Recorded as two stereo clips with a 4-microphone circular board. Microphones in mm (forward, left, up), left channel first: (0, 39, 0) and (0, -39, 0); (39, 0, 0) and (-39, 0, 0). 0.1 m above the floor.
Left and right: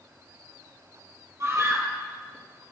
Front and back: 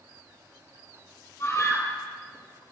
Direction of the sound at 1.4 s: 45° right.